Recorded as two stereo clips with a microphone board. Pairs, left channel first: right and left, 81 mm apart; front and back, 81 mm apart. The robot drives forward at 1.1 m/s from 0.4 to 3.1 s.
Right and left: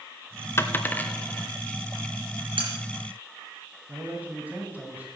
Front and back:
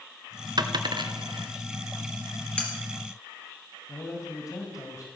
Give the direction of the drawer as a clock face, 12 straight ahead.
I don't hear a drawer.